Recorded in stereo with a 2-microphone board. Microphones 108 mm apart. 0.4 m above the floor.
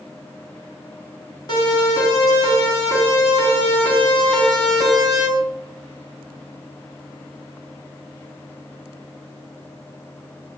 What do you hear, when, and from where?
1.5 s a siren: 40° left (ahead or behind), 7.5 m; by 5.3 s 10° right (ahead or behind), 4 m